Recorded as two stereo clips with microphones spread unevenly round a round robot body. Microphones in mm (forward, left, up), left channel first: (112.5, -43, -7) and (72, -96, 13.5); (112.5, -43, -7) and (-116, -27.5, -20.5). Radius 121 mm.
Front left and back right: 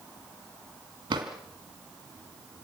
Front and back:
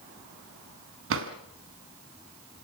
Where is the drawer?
155° right, 2 m.